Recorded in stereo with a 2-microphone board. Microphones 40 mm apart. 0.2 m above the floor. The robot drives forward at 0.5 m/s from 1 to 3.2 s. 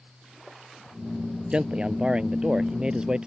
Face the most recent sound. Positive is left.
turn(degrees=-20)  # may be behind; listen again after turning